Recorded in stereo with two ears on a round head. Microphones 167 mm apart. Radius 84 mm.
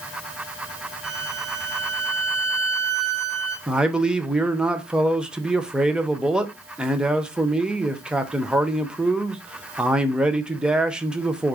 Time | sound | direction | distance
1.0 | a violin | 80° right | 2.5 m
3.7 | a man speaking | 5° right (ahead or behind) | 0.6 m